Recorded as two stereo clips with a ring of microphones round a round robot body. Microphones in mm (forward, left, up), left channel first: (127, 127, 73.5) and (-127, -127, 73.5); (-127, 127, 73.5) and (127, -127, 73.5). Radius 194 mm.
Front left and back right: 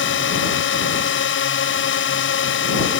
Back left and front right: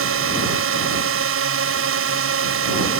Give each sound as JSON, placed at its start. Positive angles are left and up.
{"t": 0.0, "sound": "a drone", "azimuth_deg": -5}